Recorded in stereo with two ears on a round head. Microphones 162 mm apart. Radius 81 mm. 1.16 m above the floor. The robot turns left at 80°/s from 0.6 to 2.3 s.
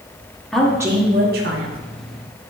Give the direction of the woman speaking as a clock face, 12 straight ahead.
12 o'clock.